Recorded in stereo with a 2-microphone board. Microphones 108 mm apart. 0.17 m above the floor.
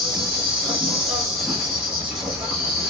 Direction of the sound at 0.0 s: 5° right (ahead or behind).